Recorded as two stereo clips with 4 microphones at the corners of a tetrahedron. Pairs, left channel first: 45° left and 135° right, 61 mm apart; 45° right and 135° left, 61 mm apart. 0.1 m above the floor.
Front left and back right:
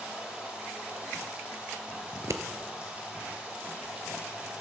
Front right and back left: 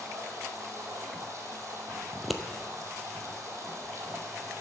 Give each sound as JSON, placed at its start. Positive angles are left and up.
{"t": 0.0, "sound": "running water", "azimuth_deg": 160, "distance_m": 2.0}
{"t": 2.1, "sound": "scissors", "azimuth_deg": -135, "distance_m": 0.6}